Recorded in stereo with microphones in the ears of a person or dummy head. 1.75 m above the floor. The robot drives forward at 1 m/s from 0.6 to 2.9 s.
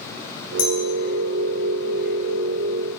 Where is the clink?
45° left (ahead or behind), 2.5 m.